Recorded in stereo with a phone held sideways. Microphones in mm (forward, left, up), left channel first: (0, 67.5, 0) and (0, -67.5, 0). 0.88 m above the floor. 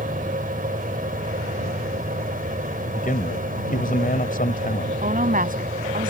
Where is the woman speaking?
75° right (ahead or behind).